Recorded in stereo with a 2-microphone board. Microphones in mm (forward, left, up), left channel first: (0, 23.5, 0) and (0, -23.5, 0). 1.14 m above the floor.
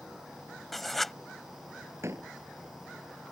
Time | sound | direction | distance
0.7 | writing | 5° left (ahead or behind) | ?
2.0 | a door slam | 65° right (ahead or behind) | ?